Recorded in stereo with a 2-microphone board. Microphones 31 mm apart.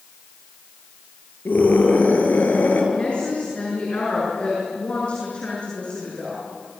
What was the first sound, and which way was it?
A scream, 60° left (ahead or behind).